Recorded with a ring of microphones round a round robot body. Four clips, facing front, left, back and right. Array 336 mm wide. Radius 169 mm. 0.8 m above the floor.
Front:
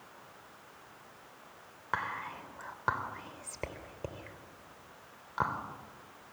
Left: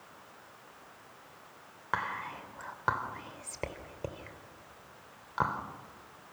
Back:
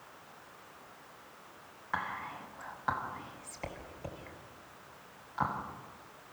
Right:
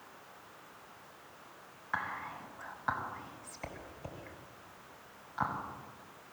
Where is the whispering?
60° left, 3 m.